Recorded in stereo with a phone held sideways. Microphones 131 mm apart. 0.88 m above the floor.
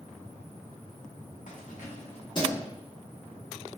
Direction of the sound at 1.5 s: 75° left (ahead or behind).